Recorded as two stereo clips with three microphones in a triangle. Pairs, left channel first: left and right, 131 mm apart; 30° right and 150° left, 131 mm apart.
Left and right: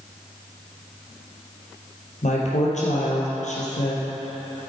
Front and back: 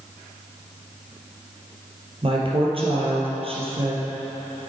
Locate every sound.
2.2 s a woman speaking: 110° left, 3 m